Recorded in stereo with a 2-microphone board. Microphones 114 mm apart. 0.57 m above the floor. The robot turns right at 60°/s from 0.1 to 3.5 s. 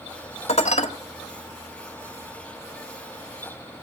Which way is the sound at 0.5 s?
65° left (ahead or behind).